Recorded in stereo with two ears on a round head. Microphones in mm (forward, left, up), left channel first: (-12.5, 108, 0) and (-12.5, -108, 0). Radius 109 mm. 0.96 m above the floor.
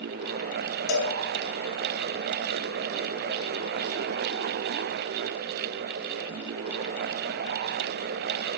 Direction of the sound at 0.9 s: 70° left (ahead or behind).